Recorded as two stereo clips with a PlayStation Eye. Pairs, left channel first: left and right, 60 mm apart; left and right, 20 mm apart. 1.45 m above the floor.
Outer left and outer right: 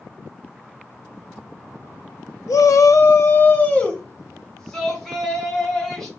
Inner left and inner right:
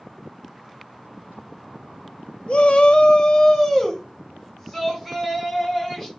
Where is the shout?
70° left (ahead or behind), 0.7 m; by 6.1 s 5° left (ahead or behind), 2.5 m.